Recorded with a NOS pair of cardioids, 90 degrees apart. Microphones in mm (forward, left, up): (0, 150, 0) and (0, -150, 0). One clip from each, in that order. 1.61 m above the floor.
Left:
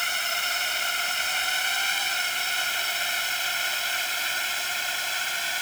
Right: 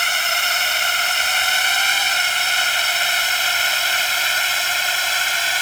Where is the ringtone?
I don't hear a ringtone.